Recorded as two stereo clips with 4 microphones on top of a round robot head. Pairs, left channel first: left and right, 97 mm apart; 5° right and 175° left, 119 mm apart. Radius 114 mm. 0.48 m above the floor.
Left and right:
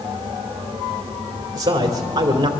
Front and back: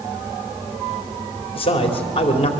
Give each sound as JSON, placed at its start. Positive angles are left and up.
{"t": 1.6, "sound": "a man speaking", "azimuth_deg": -40, "distance_m": 2.5}